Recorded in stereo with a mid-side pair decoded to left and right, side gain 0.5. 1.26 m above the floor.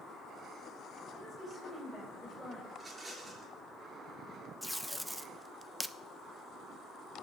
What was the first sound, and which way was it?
A woman speaking, 10° left.